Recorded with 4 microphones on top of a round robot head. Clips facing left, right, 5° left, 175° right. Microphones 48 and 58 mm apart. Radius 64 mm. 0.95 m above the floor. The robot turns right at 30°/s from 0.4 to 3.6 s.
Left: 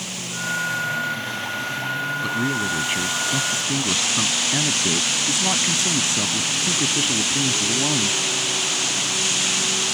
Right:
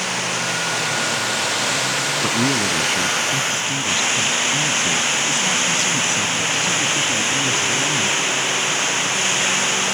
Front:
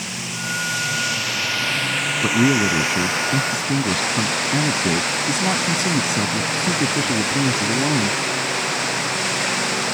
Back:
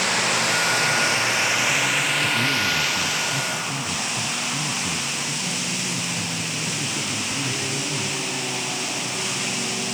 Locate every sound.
0.0 s running water: 135° right; by 9.9 s 40° right
2.2 s a man speaking: 20° right; by 8.2 s 20° left